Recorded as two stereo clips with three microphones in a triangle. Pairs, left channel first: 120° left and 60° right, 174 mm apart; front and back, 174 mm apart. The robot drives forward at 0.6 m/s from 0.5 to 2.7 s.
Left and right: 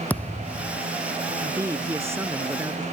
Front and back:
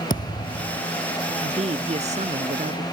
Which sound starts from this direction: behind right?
A man speaking, at 1.4 s.